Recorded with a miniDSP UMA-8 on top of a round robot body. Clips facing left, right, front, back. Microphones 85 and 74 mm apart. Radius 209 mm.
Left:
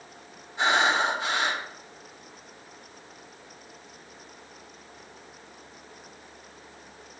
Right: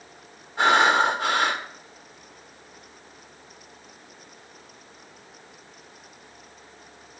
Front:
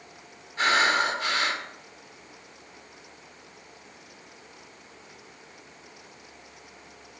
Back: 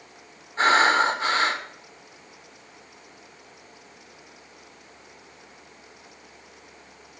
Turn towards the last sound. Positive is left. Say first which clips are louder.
# right 5 dB, back 4 dB
turn(degrees=-120)